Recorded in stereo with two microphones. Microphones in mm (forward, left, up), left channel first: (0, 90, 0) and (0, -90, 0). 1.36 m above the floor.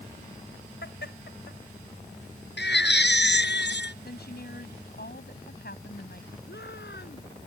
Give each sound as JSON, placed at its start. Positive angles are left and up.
{"t": 0.8, "sound": "laughter", "side_deg": 80}
{"t": 2.6, "sound": "a baby crying", "side_deg": 75}
{"t": 4.0, "sound": "a woman speaking", "side_deg": 60}
{"t": 6.5, "sound": "a shout", "side_deg": 70}